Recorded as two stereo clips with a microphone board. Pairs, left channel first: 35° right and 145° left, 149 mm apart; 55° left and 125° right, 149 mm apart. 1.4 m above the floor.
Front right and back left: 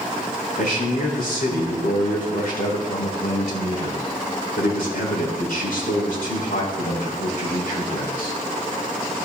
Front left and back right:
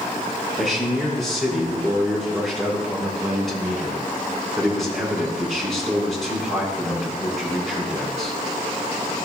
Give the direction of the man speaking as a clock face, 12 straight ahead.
1 o'clock.